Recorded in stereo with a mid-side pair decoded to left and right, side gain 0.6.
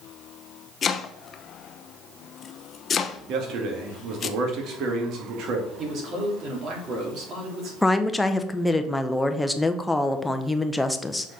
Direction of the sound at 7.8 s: 10° left.